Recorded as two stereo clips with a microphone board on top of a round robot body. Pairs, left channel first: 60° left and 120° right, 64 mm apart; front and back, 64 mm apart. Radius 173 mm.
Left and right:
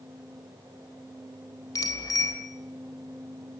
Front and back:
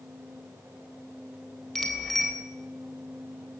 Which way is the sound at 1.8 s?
85° left.